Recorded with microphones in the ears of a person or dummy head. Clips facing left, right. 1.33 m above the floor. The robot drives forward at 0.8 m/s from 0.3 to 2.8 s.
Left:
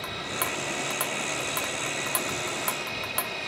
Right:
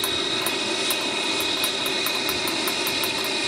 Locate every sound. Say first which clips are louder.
0.0 s an aircraft: right 6 dB; 60° right (ahead or behind); by 3.5 s 65° right (ahead or behind)